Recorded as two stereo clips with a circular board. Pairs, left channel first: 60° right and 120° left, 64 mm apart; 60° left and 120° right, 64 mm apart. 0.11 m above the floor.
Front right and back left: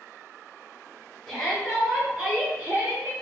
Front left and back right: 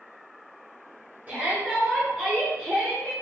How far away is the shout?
About 1.7 m.